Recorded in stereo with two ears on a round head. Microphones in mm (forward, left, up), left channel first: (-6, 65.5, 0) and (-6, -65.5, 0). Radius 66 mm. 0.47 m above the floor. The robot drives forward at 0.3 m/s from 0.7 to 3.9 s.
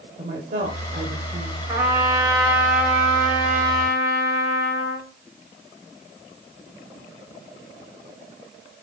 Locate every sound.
0.2 s a woman speaking: 55° right (ahead or behind), 1.4 m; by 1.6 s 50° right (ahead or behind), 1.5 m
1.7 s a trumpet: 20° right (ahead or behind), 3 m; by 5.0 s 15° right (ahead or behind), 3.5 m